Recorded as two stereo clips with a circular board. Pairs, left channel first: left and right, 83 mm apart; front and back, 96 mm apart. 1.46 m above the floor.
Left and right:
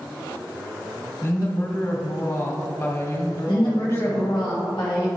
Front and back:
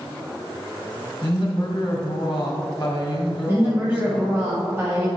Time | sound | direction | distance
1.2 | a woman speaking | 45° left | 1.6 m
3.5 | a woman speaking | 115° left | 1.4 m